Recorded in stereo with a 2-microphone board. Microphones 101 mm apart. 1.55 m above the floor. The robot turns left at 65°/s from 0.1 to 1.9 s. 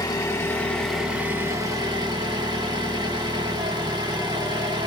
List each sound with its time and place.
0.0 s an engine running: 55° left, 0.9 m; by 4.9 s 65° right, 0.9 m